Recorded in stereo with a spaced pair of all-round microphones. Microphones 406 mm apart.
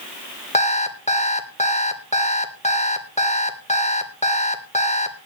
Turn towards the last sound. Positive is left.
turn(degrees=15)  # may be behind; listen again after turning